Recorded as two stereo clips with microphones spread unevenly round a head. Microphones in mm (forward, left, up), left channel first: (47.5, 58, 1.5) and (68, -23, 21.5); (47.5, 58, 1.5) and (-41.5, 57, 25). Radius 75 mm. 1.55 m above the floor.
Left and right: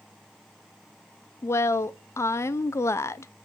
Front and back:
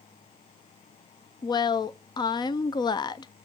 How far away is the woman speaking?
About 0.5 m.